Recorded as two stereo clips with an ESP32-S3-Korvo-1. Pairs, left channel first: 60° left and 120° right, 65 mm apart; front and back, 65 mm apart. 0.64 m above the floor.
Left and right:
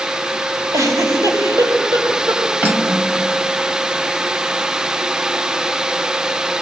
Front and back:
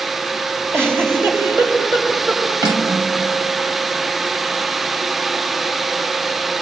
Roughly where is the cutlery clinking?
Behind.